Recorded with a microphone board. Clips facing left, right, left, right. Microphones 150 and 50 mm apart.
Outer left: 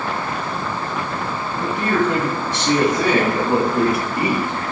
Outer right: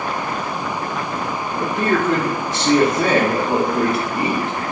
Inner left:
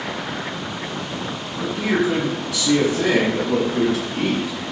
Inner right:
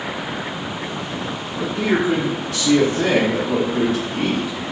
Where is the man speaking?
50° right (ahead or behind), 1.1 m; by 4.5 s 10° left (ahead or behind), 1.3 m.